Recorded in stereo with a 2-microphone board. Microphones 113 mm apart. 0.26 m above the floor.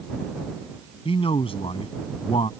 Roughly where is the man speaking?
Left.